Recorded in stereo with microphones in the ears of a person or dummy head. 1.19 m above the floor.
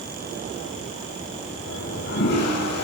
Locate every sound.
1.7 s a toilet flushing: 55° left (ahead or behind), 5 m